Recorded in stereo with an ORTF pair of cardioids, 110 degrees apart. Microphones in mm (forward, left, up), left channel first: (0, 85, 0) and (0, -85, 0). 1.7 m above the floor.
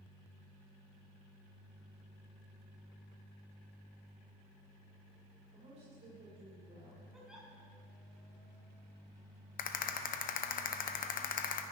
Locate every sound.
5.5 s a woman speaking: 40° right, 6 m
7.1 s a giggle: 5° right, 4.5 m
9.6 s a rattle: 55° left, 1.1 m